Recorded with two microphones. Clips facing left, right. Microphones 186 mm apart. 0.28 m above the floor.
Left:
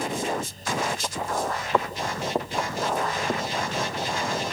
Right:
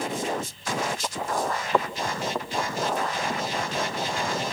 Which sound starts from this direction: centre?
Footsteps, at 1.7 s.